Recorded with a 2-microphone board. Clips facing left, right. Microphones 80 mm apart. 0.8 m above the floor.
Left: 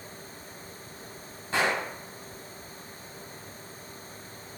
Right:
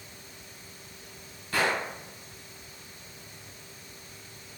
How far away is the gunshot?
About 0.8 m.